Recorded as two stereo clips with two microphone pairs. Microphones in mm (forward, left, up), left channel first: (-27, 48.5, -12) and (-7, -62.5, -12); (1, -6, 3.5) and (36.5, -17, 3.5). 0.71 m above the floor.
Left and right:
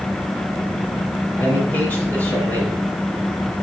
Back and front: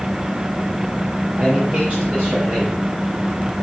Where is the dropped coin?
I don't hear a dropped coin.